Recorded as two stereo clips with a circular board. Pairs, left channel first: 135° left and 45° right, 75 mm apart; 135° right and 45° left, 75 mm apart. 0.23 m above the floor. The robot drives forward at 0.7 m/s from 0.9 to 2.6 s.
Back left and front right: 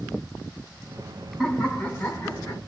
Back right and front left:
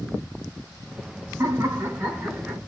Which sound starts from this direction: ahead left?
Laughter, at 1.4 s.